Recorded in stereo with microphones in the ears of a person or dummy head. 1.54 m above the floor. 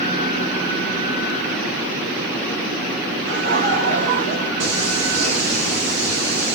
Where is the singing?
70° right (ahead or behind), 1.8 m.